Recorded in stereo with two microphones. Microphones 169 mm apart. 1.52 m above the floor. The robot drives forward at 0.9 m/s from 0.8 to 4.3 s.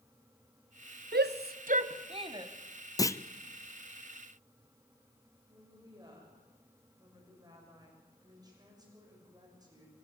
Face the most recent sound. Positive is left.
turn(degrees=-25)  # may be behind; listen again after turning